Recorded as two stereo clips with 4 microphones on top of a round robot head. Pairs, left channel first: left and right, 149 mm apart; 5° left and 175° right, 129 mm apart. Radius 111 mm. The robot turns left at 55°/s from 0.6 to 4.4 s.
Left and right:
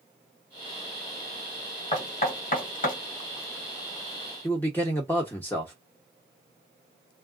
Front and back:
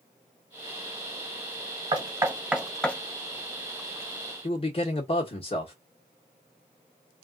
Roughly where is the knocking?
Behind left.